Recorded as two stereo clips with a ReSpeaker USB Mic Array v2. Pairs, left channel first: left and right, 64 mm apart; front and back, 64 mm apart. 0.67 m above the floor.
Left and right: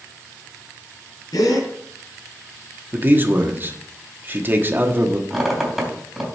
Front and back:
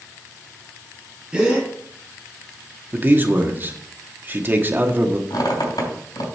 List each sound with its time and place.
1.3 s a gasp: 105° left, 6.5 m
2.9 s a man speaking: 135° right, 1.2 m
5.3 s a squeak: 5° right, 3 m